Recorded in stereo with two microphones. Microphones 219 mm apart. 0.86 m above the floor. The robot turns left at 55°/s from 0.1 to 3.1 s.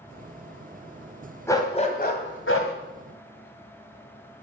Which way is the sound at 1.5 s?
170° left.